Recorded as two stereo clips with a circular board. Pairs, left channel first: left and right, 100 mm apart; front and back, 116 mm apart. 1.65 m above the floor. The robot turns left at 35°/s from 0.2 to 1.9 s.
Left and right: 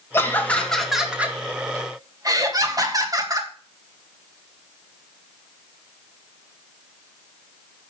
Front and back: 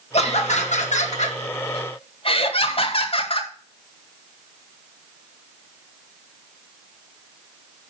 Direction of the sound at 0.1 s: 25° left.